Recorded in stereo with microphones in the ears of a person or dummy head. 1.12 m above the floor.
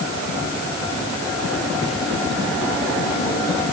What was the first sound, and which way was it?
Only background noise.